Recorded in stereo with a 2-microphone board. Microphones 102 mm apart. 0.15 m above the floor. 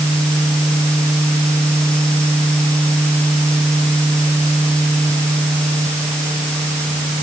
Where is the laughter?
No laughter in this recording.